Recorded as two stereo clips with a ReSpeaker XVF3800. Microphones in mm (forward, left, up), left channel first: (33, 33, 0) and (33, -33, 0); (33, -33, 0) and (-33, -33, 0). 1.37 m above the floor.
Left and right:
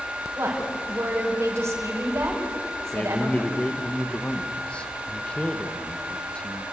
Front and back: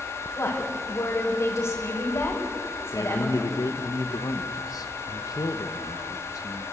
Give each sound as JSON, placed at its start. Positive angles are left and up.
{"t": 0.4, "sound": "a woman speaking", "azimuth_deg": -45, "distance_m": 6.5}
{"t": 2.9, "sound": "a man speaking", "azimuth_deg": 15, "distance_m": 1.2}